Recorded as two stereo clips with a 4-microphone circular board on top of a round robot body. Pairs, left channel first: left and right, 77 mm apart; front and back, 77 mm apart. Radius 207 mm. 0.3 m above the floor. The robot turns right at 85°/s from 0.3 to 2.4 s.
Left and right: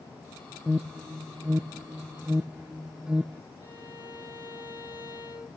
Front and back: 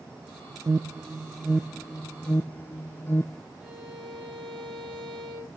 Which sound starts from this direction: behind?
An alarm, at 0.7 s.